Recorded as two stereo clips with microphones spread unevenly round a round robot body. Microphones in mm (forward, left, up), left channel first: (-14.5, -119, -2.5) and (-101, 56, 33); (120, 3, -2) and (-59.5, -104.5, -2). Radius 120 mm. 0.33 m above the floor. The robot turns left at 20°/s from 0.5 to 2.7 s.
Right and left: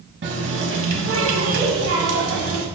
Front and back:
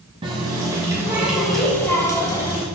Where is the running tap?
140° left, 1.4 m; by 2.7 s 95° left, 1.4 m.